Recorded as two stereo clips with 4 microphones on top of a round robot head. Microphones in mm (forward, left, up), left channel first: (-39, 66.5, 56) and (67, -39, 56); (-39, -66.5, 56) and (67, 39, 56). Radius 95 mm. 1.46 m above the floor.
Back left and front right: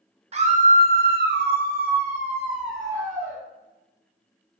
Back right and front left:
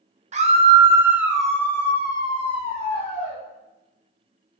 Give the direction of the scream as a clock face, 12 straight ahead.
12 o'clock.